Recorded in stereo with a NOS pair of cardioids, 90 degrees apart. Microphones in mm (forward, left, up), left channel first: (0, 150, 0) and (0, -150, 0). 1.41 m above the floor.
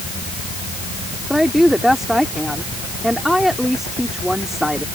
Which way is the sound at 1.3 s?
Straight ahead.